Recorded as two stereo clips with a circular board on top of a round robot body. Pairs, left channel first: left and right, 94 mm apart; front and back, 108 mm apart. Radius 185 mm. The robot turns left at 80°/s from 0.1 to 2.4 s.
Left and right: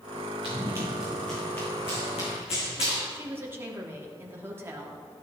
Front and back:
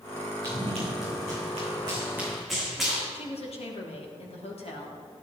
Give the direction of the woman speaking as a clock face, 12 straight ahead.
1 o'clock.